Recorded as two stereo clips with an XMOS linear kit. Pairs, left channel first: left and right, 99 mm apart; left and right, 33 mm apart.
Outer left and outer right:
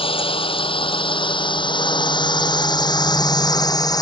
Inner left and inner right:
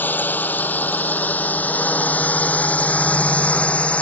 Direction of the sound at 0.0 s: 65° left (ahead or behind).